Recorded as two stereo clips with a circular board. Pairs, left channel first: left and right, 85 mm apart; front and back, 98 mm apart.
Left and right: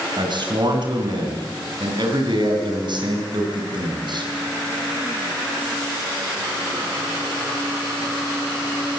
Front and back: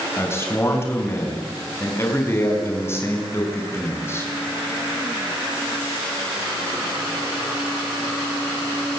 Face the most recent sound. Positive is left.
turn(degrees=-65)